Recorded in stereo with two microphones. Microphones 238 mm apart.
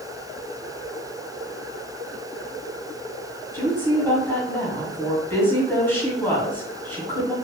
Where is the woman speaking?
10° left (ahead or behind), 1.6 m.